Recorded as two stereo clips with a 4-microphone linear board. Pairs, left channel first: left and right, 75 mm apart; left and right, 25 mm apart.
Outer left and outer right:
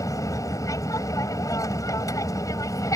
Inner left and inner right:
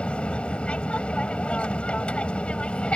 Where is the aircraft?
50° left (ahead or behind).